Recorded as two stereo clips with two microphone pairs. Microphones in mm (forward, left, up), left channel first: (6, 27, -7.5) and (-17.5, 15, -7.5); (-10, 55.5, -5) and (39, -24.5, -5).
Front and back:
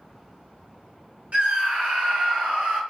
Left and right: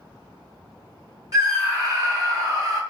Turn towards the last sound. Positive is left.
turn(degrees=-115)